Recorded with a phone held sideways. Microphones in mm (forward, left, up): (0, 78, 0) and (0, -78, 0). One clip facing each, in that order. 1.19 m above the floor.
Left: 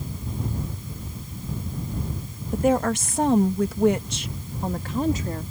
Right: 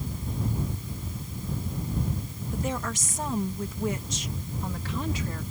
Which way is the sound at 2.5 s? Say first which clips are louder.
Left 11 dB; 55° left (ahead or behind).